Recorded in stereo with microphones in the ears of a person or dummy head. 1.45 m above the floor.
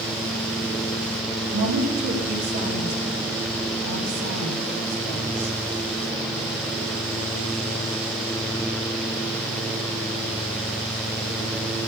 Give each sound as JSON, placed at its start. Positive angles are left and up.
{"t": 1.5, "sound": "a woman speaking", "side_deg": -80, "distance_m": 4.5}